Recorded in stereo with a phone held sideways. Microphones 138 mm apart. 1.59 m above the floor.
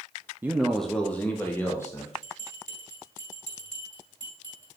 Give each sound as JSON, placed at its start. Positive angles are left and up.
{"t": 0.4, "sound": "a man speaking", "side_deg": -15, "distance_m": 0.6}
{"t": 2.2, "sound": "a bell", "side_deg": 60, "distance_m": 3.5}